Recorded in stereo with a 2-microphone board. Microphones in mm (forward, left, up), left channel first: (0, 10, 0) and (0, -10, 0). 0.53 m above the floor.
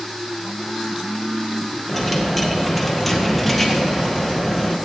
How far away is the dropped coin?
About 1.6 m.